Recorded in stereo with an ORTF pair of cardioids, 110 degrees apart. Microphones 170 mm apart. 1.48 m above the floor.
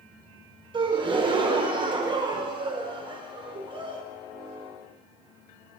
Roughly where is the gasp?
Ahead right.